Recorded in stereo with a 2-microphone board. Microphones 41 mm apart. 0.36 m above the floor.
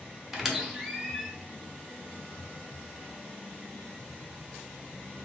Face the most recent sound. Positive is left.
turn(degrees=-10)  # may be behind; listen again after turning